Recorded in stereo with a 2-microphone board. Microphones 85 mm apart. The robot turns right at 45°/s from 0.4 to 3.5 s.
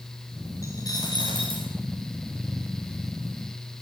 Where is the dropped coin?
35° left, 6 m; by 1.7 s 85° left, 6 m.